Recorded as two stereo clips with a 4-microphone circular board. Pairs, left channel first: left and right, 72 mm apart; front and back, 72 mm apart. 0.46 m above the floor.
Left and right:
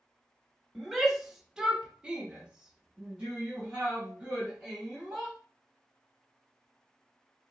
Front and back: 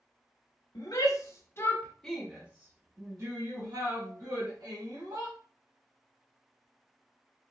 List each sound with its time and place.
0.8 s a shout: straight ahead, 1.2 m; by 5.3 s 165° right, 2.5 m